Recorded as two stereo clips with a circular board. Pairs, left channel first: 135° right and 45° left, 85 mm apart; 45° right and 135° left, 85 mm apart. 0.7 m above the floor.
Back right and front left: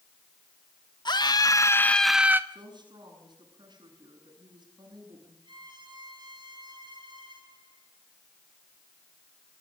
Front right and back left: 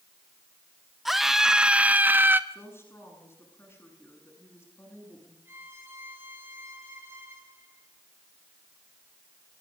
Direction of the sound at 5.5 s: 70° left.